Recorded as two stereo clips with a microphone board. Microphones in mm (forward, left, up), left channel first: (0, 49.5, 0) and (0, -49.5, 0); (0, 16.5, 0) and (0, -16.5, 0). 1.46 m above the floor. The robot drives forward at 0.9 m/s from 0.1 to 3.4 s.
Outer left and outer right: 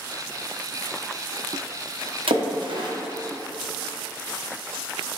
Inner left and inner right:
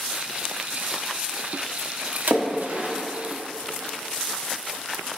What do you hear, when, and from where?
2.3 s a splash: 85° right, 0.8 m; by 2.9 s 55° right (ahead or behind), 1.0 m